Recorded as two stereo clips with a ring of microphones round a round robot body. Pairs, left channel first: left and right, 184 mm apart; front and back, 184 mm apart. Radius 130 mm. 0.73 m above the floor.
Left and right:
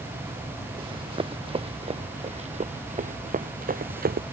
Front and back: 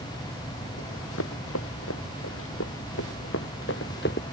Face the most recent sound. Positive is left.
turn(degrees=-55)